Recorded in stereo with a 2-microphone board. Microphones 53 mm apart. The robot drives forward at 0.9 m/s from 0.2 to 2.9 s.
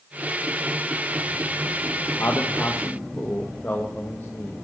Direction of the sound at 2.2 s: 50° left (ahead or behind).